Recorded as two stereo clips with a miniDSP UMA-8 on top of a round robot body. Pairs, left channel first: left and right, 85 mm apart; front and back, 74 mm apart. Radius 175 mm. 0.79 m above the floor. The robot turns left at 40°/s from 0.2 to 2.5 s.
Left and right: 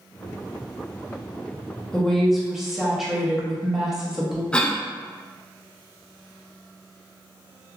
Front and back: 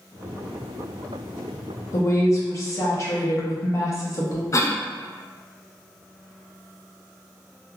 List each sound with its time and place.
1.9 s a woman speaking: 15° left, 0.9 m; by 4.4 s 10° right, 0.9 m
4.5 s a cough: 20° left, 0.6 m